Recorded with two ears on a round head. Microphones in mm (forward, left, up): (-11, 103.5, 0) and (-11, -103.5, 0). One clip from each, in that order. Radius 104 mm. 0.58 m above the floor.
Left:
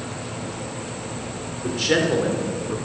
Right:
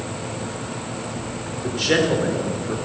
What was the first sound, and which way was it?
A man speaking, 5° left (ahead or behind).